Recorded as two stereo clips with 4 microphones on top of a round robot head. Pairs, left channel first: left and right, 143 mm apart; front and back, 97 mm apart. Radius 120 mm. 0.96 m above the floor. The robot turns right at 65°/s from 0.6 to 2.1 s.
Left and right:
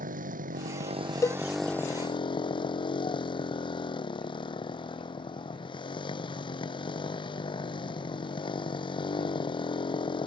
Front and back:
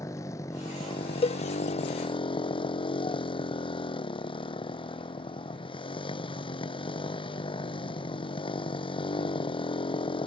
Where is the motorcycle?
65° right; by 10.3 s 35° left.